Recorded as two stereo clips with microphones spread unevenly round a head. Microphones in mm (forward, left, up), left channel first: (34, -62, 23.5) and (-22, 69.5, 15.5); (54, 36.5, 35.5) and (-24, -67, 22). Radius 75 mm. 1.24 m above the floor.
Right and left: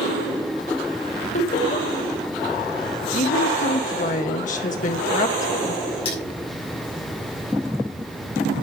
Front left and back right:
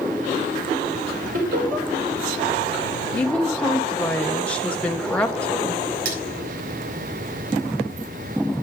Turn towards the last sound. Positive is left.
turn(degrees=-120)